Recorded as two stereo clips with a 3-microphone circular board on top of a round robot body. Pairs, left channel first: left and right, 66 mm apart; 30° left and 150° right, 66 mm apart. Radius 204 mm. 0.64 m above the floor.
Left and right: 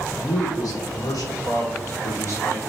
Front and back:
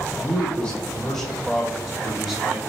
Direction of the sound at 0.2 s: 100° left.